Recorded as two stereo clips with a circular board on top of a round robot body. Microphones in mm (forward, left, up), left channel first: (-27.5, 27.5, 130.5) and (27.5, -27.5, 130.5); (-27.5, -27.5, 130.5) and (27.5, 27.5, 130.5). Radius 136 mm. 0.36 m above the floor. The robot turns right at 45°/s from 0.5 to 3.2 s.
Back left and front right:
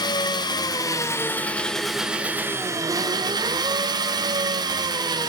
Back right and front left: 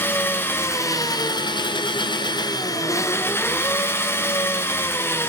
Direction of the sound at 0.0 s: 160° left.